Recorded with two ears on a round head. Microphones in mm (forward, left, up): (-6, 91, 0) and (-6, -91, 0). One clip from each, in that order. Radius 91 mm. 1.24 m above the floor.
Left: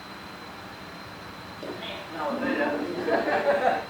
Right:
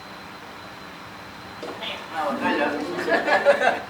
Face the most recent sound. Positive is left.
turn(degrees=-70)  # may be behind; listen again after turning